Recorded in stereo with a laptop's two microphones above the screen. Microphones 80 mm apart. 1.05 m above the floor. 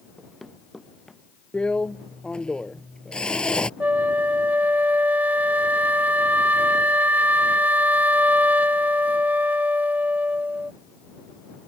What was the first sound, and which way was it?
Running footsteps, centre (ahead or behind).